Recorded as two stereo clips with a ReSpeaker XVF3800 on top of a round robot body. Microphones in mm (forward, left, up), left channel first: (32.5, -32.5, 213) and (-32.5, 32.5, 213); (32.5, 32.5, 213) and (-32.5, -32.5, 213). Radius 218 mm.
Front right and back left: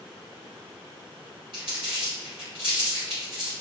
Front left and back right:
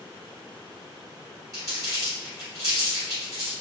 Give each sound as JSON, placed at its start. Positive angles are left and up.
{"t": 1.5, "sound": "crumpling", "azimuth_deg": 170, "distance_m": 0.6}